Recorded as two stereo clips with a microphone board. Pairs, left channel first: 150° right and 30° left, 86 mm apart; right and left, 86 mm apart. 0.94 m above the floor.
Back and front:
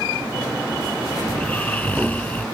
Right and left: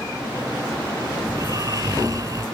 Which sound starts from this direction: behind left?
Snoring, at 1.3 s.